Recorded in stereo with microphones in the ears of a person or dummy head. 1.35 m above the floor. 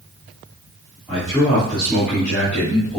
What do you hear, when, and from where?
1.1 s a man speaking: 5° left (ahead or behind), 2 m